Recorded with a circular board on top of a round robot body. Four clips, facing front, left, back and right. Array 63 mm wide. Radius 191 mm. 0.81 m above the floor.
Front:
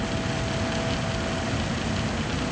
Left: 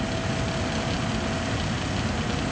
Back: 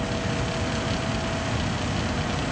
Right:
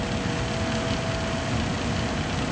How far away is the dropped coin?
No dropped coin in this recording.